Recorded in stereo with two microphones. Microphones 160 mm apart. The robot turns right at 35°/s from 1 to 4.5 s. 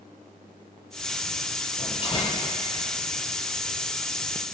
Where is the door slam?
50° left (ahead or behind), 5.5 m; by 2.4 s 25° left (ahead or behind), 5.5 m.